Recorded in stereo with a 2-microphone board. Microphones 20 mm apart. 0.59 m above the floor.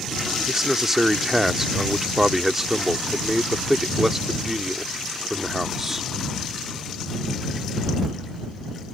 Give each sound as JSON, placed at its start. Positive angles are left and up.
{"t": 0.5, "sound": "a man speaking", "side_deg": -20}